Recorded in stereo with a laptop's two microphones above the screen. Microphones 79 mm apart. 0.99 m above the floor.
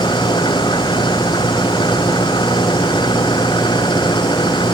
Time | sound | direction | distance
0.0 | an engine running | 75° left (ahead or behind) | ?